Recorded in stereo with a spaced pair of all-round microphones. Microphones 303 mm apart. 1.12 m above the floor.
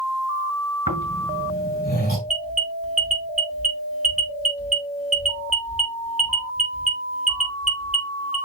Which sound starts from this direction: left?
Snoring, at 0.9 s.